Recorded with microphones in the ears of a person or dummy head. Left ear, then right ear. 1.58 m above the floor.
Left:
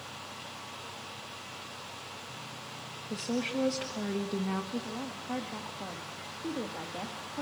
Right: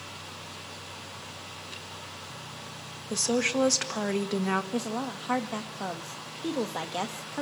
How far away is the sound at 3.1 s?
About 1.4 m.